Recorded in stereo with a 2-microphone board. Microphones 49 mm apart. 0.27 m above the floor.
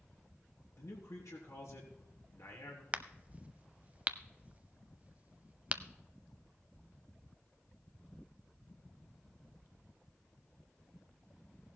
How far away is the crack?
About 0.5 m.